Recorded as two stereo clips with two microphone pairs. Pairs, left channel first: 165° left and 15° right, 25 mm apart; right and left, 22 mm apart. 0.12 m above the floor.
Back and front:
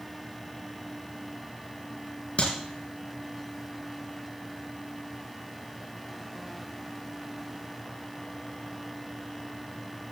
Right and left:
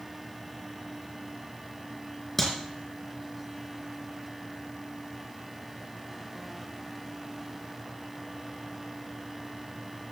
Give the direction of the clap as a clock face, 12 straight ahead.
6 o'clock.